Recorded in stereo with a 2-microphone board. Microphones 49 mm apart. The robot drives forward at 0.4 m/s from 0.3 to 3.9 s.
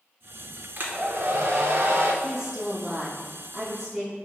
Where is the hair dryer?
40° right (ahead or behind), 0.6 m; by 2.1 s 50° right (ahead or behind), 0.5 m.